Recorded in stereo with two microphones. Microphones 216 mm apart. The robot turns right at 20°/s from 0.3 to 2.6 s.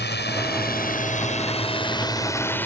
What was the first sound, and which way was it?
A drone, 50° left (ahead or behind).